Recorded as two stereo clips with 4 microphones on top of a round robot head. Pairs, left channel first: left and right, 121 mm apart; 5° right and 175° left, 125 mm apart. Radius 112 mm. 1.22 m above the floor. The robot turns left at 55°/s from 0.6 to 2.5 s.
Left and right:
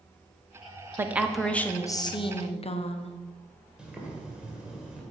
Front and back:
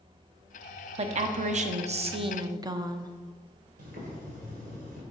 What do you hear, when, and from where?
1.0 s a woman speaking: 160° right, 1.0 m; by 3.1 s 120° left, 1.0 m
3.8 s boiling: 170° right, 2 m